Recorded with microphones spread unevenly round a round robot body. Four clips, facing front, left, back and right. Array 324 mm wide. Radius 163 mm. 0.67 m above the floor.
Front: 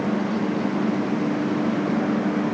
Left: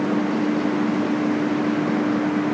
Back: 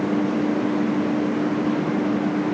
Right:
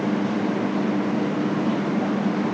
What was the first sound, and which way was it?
Only background noise.